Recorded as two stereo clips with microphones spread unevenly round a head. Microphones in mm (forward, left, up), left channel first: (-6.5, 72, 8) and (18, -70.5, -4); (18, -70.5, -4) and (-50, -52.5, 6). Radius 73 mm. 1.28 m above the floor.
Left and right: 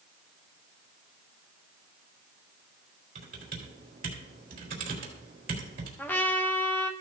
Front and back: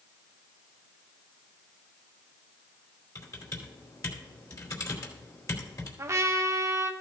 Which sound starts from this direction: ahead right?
Typing on a keyboard, at 3.1 s.